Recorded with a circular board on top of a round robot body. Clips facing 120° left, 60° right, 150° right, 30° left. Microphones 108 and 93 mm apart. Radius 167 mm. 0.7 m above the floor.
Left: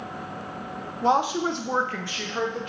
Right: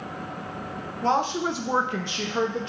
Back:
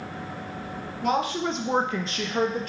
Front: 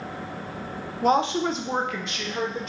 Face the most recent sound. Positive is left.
turn(degrees=-120)